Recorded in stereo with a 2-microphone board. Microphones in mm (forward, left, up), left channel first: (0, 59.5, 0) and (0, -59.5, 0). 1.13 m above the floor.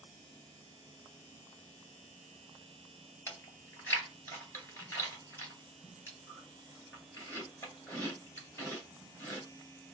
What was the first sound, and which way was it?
Chewing, 25° left (ahead or behind).